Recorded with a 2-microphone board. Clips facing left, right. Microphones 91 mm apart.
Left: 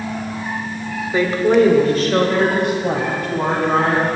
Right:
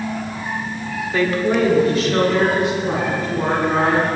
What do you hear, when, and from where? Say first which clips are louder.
1.1 s a woman speaking: left 4 dB; 20° left (ahead or behind), 1.2 m; by 4.1 s 70° left (ahead or behind), 4.5 m